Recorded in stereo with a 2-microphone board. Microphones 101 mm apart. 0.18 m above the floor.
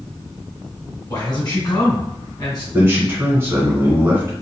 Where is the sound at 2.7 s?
25° right (ahead or behind), 1.9 m.